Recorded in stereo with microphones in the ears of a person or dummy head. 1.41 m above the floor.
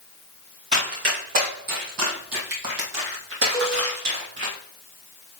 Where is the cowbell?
10° right (ahead or behind), 2.5 m.